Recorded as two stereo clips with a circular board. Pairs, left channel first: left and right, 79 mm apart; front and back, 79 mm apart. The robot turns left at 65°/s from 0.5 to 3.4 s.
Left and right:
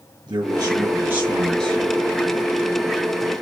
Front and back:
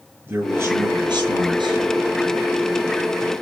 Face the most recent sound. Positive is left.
turn(degrees=55)